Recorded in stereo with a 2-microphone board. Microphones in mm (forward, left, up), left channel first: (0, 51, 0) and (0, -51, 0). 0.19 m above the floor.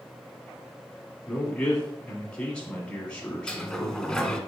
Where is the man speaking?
10° left (ahead or behind), 1.5 m.